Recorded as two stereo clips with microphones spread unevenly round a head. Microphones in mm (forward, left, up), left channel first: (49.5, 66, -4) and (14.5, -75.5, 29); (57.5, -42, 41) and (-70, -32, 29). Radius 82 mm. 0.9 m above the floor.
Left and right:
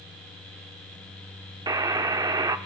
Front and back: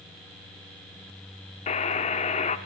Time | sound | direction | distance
1.7 | a buzzer | 40° right | 1.1 m